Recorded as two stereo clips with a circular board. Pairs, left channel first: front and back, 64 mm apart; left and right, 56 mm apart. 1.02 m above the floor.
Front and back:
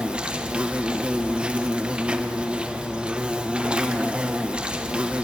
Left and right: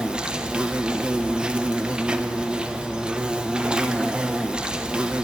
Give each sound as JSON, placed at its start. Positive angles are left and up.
{"t": 0.0, "sound": "an insect", "azimuth_deg": -135, "distance_m": 1.0}